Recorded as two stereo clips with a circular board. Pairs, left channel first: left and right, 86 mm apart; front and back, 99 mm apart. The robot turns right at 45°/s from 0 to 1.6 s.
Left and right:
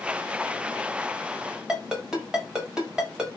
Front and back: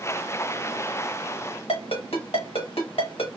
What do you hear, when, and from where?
1.7 s a ringtone: 10° right, 1.2 m